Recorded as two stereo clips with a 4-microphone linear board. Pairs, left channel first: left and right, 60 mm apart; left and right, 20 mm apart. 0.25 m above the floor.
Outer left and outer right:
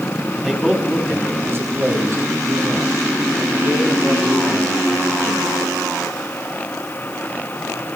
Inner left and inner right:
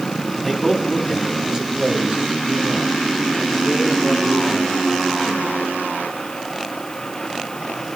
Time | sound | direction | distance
0.4 | a man speaking | 10° right (ahead or behind) | 2.5 m